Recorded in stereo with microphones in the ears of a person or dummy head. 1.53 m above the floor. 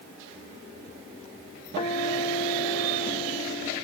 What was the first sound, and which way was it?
A guitar, 35° left (ahead or behind).